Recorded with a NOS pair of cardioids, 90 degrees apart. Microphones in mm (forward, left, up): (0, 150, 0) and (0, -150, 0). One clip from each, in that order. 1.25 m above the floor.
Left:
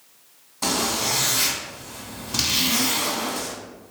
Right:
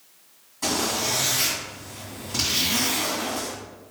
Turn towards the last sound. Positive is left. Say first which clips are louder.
# left 1 dB
turn(degrees=40)